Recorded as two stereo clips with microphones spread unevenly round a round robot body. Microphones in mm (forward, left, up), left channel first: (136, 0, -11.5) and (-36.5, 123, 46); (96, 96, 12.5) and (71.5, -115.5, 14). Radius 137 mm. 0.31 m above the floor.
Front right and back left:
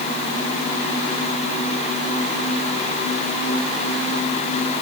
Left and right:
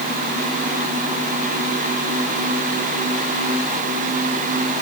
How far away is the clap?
I don't hear a clap.